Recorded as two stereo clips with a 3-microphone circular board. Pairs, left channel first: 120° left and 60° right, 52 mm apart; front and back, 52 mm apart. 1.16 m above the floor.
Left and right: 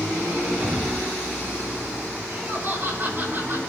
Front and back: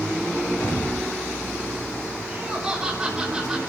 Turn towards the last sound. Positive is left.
turn(degrees=-105)